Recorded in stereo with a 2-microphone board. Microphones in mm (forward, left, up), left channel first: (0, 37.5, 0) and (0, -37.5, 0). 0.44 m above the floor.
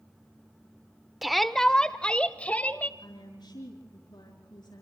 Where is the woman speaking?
80° left, 4.5 m.